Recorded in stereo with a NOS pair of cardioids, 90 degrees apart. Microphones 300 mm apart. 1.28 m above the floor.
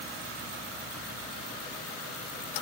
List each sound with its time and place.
Only background noise.